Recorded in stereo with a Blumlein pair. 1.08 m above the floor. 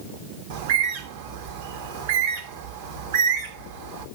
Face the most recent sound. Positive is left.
turn(degrees=-55)